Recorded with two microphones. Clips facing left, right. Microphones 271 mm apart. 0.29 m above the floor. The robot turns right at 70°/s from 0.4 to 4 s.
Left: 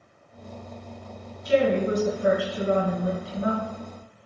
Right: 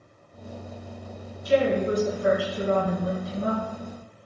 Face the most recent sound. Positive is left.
turn(degrees=-120)